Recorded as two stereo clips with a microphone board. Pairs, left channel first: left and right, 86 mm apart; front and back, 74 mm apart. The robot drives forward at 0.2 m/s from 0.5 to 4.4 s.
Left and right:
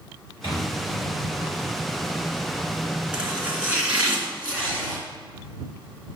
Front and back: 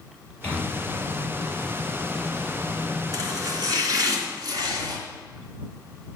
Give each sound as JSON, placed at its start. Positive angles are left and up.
{"t": 0.4, "sound": "a microwave", "azimuth_deg": 70, "distance_m": 5.0}
{"t": 3.1, "sound": "chopping", "azimuth_deg": -165, "distance_m": 2.5}